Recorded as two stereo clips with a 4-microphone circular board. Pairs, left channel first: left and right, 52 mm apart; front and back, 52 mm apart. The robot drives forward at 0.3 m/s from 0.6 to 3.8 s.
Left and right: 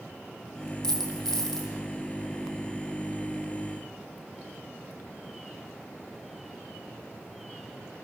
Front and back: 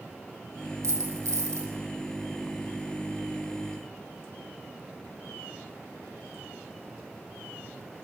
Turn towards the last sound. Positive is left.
turn(degrees=170)